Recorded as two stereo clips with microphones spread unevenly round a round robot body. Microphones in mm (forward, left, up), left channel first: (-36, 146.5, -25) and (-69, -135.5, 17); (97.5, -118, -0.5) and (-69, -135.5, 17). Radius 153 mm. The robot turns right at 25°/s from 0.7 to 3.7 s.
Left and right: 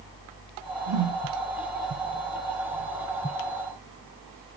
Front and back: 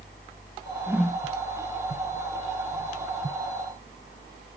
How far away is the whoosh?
About 0.7 m.